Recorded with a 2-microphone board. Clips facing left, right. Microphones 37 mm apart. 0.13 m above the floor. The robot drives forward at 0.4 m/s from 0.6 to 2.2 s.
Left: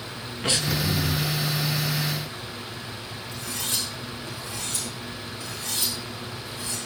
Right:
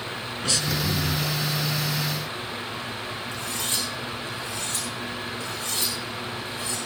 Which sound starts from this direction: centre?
Breathing, at 0.4 s.